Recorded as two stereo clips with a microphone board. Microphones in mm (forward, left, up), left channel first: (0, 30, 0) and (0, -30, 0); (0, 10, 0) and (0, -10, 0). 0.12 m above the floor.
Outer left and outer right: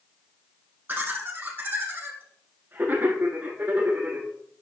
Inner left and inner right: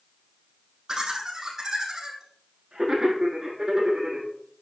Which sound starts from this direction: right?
Laughter, at 0.9 s.